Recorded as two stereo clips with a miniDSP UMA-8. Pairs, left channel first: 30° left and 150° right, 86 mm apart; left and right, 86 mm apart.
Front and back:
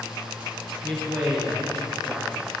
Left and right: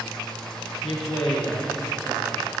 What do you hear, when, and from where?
0.8 s a man speaking: 130° left, 3 m; by 2.5 s 140° left, 3.5 m